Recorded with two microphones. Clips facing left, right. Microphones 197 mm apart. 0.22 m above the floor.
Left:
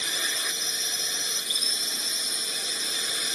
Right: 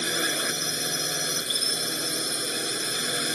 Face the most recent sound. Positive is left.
turn(degrees=-60)  # may be behind; listen again after turning